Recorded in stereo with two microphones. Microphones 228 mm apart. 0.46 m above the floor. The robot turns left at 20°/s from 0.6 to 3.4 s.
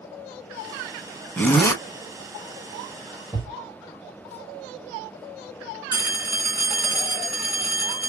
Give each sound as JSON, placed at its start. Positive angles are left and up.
{"t": 1.4, "sound": "a zipper", "side_deg": 5, "distance_m": 1.2}
{"t": 3.3, "sound": "a thud", "side_deg": -10, "distance_m": 3.0}
{"t": 5.9, "sound": "a phone ringing", "side_deg": -15, "distance_m": 2.5}